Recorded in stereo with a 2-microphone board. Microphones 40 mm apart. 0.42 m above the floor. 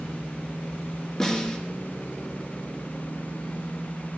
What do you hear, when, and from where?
1.2 s a snare drum: 15° left (ahead or behind), 3 m